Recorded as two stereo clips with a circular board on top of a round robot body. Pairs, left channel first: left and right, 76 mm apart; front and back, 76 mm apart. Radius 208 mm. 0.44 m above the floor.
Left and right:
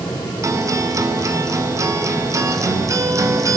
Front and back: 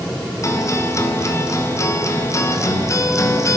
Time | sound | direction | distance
0.4 | a guitar | 45° right | 2.5 m